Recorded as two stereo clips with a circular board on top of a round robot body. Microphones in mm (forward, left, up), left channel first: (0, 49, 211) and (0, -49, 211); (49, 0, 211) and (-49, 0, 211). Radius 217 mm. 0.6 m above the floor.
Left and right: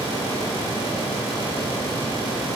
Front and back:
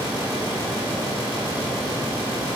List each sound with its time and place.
Only background noise.